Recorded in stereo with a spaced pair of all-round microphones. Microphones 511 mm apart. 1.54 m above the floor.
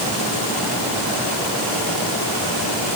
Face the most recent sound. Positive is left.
No sound to turn to.